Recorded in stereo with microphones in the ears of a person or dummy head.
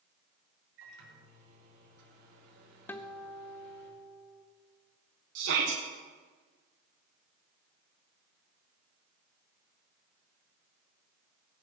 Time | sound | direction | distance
0.8 | a microwave | 75° right (ahead or behind) | 5.5 m
2.9 | a guitar | 20° left (ahead or behind) | 0.7 m
5.3 | a shout | 60° right (ahead or behind) | 1.6 m